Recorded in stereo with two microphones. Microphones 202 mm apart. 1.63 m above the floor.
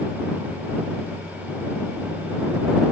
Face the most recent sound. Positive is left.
No sound to turn to.